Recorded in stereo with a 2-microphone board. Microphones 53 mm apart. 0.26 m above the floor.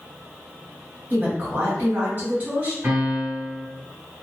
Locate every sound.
1.1 s a woman speaking: 35° right (ahead or behind), 1.7 m
2.8 s a piano: 40° right (ahead or behind), 1.6 m